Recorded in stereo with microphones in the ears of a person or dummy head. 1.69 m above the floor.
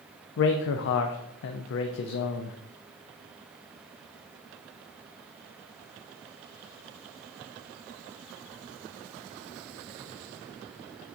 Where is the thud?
No thud in this recording.